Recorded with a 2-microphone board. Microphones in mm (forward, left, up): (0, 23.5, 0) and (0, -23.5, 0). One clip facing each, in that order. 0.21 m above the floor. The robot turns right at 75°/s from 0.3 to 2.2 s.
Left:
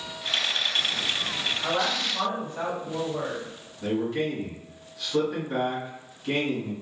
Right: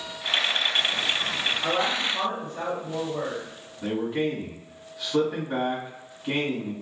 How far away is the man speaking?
About 1.4 m.